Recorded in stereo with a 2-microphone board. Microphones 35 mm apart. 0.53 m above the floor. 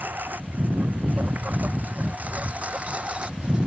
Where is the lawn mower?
60° right (ahead or behind); by 3.7 s 30° right (ahead or behind).